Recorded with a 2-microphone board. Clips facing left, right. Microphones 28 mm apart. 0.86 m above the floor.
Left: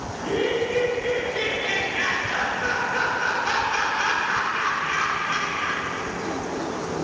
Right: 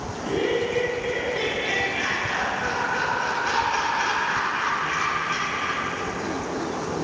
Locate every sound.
0.1 s laughter: 10° left (ahead or behind), 3 m